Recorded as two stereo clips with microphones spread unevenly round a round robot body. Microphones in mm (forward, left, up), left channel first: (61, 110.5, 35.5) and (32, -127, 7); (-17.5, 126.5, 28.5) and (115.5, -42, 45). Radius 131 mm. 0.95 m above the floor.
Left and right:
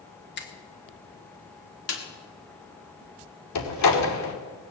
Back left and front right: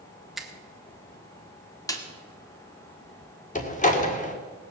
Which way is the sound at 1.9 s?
55° left.